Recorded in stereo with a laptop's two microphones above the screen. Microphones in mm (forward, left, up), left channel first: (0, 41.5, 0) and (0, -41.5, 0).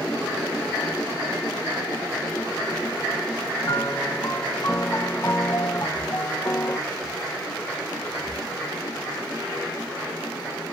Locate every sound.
3.6 s a piano: 30° left (ahead or behind), 1.0 m